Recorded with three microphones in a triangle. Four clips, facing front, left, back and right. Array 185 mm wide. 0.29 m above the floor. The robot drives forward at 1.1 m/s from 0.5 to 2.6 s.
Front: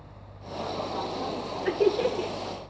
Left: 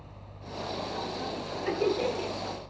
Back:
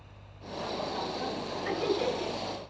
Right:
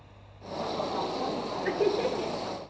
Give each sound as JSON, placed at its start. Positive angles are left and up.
{"t": 1.6, "sound": "laughter", "azimuth_deg": -20, "distance_m": 5.5}